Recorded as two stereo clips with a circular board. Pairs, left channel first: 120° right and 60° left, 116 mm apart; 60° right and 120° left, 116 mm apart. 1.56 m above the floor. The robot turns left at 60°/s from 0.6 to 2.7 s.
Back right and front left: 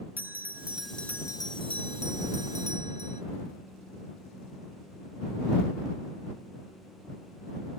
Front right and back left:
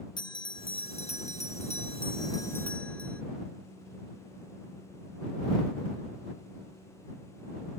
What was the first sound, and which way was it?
A bell, 15° right.